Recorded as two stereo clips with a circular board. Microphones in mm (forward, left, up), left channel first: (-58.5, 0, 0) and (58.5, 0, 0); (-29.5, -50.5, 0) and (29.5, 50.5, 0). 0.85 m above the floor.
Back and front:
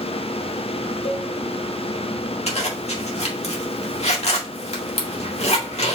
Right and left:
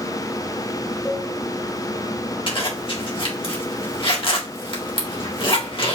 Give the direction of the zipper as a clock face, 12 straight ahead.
5 o'clock.